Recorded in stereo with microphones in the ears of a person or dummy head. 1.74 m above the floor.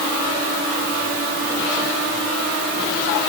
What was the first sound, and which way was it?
Only background noise.